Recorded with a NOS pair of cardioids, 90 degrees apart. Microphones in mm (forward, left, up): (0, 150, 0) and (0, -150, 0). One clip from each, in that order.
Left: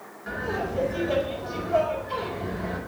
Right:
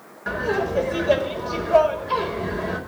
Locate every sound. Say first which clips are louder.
0.3 s laughter: right 6 dB; 55° right, 4.5 m